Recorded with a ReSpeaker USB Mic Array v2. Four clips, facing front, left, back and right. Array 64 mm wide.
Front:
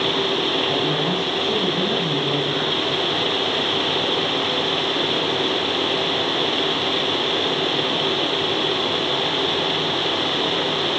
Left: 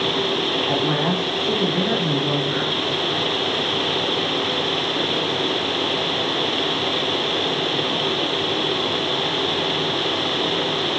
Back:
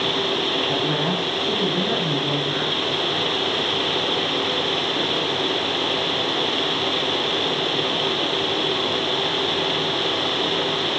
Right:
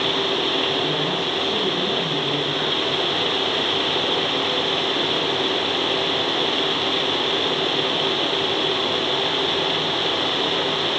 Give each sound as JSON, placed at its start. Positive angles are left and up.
{"t": 0.7, "sound": "a woman speaking", "azimuth_deg": 85, "distance_m": 6.0}